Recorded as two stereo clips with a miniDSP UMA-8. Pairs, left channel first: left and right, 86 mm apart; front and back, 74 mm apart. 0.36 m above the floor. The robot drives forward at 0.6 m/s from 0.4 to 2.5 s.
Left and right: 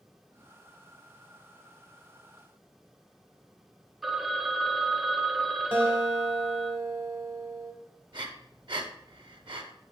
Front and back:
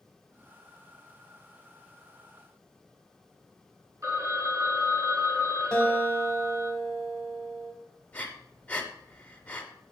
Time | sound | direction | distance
4.0 | a phone ringing | straight behind | 0.5 m
5.7 | a guitar | 60° right | 0.9 m
8.1 | breathing | 70° right | 0.5 m